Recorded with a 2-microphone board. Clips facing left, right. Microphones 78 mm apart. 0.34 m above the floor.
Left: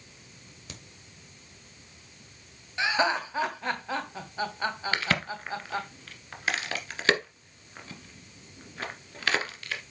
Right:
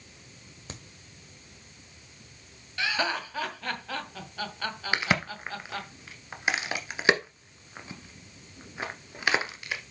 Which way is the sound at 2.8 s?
20° left (ahead or behind).